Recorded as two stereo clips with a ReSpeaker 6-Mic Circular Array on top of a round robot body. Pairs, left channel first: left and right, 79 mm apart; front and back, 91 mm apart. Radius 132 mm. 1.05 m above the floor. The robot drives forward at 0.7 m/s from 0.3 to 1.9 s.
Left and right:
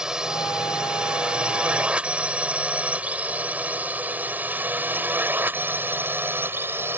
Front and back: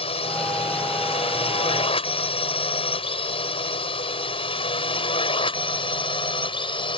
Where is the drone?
10° right; by 7.0 s 25° right.